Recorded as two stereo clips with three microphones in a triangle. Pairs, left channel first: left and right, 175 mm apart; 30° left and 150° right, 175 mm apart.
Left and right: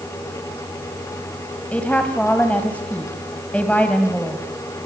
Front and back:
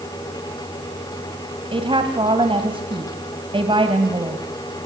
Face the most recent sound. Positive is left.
turn(degrees=170)